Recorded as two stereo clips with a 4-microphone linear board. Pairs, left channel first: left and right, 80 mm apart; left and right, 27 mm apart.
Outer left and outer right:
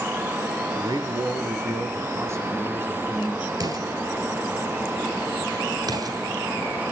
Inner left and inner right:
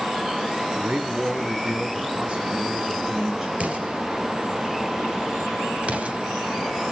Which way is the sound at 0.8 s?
55° right (ahead or behind).